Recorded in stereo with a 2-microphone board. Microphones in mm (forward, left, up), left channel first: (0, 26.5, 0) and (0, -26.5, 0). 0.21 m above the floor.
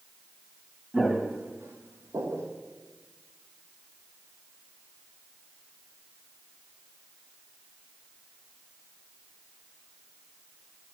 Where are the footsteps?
10° right (ahead or behind), 1.4 m; by 2.5 s 85° right, 1.9 m.